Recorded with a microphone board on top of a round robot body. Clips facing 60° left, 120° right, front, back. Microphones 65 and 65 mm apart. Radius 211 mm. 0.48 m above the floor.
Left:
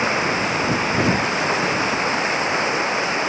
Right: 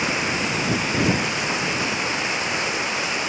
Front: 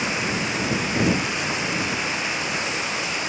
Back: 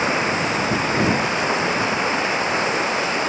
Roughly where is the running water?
Behind left.